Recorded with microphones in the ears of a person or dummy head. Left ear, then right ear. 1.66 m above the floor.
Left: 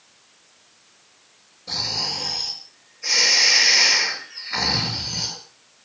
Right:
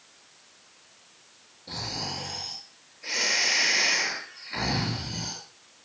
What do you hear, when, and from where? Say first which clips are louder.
1.7 s snoring: left 9 dB; 45° left (ahead or behind), 7 m